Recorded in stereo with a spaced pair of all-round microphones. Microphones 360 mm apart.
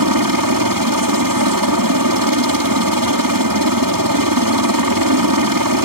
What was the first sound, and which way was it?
A helicopter, 65° right (ahead or behind).